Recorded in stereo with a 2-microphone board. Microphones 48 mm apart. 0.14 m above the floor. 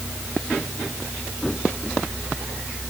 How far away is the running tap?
No running tap in this recording.